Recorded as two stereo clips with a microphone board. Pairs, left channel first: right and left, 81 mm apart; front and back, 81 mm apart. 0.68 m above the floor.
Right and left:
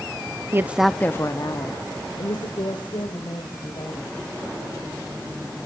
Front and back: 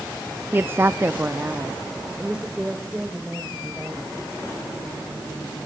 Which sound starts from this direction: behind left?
A woman speaking, at 0.5 s.